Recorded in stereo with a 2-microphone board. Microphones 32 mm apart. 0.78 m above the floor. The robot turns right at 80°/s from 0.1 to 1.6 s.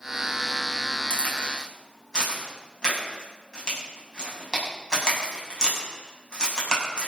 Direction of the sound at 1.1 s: 60° left (ahead or behind).